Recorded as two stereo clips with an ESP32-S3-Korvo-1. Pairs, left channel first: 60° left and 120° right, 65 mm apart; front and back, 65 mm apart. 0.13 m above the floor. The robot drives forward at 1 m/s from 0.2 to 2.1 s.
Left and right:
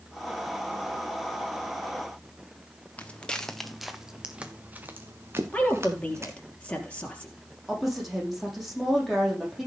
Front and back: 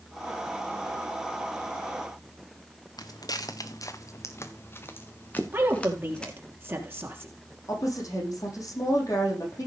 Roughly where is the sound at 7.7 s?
Ahead right.